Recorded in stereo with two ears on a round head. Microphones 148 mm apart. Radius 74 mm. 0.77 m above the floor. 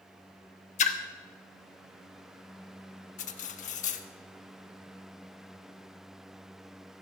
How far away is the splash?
About 1.0 m.